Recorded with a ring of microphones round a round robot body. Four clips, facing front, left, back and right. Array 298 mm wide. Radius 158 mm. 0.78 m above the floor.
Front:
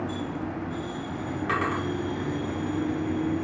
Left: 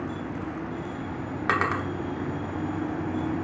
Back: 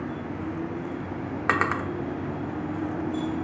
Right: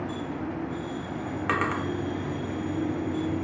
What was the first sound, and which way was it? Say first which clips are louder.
A drawer: left 2 dB, back 3 dB; 165° left.